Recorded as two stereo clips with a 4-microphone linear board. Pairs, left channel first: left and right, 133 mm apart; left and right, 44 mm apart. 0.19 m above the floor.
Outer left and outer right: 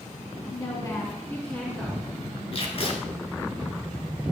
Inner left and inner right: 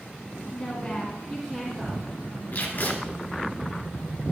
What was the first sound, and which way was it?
A woman speaking, 35° left (ahead or behind).